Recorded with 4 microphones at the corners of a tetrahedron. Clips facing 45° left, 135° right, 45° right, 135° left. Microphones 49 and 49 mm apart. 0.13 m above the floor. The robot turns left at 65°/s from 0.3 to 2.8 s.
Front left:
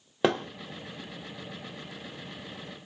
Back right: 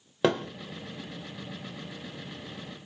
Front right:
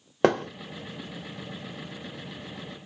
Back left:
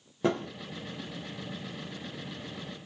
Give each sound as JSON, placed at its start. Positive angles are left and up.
{"t": 0.2, "sound": "a thud", "azimuth_deg": -40, "distance_m": 0.9}